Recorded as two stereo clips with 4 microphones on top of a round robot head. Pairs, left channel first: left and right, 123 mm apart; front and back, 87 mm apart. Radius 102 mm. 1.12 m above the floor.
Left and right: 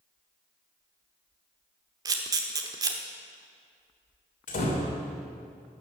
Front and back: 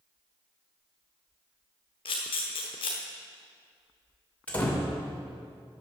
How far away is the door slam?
About 3 m.